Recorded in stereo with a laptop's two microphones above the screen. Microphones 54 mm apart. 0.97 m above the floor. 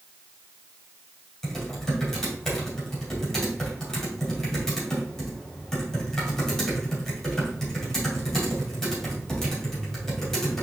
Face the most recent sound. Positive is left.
turn(degrees=5)  # may be behind; listen again after turning